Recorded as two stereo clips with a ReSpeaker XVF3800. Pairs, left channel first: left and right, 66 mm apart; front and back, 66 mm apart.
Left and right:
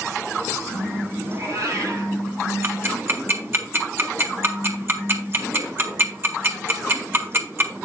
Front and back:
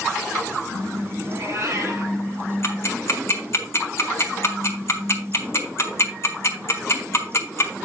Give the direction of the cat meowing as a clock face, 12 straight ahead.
4 o'clock.